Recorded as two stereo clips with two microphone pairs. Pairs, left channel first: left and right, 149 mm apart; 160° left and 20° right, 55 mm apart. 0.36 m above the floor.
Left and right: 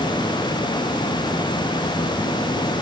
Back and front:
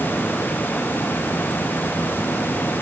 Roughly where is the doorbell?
I don't hear a doorbell.